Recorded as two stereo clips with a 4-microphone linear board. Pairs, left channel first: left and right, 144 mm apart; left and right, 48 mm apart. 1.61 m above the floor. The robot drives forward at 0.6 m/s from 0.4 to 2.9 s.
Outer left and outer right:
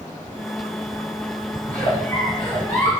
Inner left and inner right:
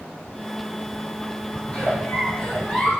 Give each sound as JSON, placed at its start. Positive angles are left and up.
{"t": 1.7, "sound": "a giggle", "side_deg": 10, "distance_m": 4.5}